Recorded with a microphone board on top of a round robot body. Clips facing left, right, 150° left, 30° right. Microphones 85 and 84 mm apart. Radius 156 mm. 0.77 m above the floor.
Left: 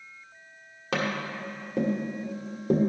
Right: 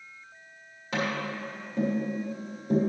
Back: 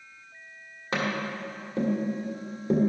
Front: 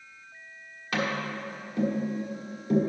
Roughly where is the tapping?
Left.